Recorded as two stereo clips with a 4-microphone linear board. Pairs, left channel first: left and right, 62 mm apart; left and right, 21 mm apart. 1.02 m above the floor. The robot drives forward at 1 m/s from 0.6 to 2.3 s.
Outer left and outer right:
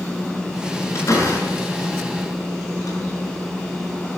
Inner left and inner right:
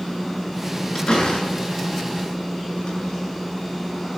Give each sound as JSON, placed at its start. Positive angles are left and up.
{"t": 0.9, "sound": "a door slam", "side_deg": 55, "distance_m": 8.0}